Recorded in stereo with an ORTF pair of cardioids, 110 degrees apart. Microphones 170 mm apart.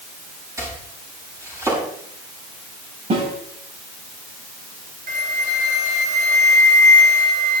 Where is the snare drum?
40° right, 7 m.